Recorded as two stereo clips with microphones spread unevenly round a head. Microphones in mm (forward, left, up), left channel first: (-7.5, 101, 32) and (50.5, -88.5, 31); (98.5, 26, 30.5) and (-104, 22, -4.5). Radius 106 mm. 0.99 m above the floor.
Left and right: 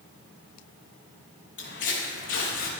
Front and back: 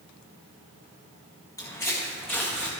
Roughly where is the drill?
I don't hear a drill.